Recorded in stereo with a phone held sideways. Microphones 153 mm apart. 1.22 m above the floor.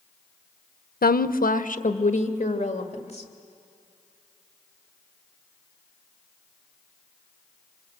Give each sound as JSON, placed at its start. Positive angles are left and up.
{"t": 1.0, "sound": "a woman speaking", "side_deg": 85, "distance_m": 0.6}